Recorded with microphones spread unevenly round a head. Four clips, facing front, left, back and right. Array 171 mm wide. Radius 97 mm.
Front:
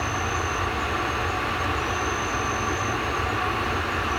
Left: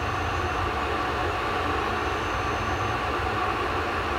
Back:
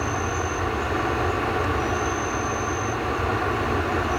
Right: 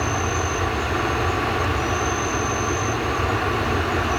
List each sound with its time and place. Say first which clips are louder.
0.0 s an insect: right 4 dB, back 1 dB; 135° right